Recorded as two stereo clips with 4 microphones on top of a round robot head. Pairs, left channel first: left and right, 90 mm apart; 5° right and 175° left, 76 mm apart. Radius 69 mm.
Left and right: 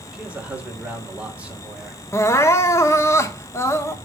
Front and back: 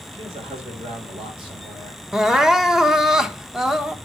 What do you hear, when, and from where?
0.1 s a man speaking: 165° right, 2.5 m
2.1 s crying: 95° left, 0.8 m